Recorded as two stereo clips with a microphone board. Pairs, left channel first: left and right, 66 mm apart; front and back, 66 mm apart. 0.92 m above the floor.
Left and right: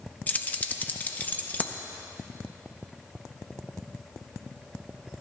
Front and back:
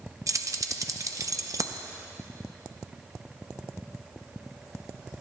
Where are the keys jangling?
155° left, 0.5 m.